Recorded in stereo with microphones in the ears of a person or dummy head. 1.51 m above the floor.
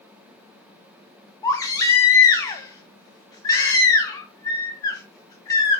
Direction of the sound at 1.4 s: 20° left (ahead or behind).